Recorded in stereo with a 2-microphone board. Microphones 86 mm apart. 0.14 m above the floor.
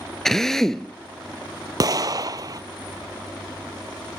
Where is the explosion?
50° right (ahead or behind), 0.5 m.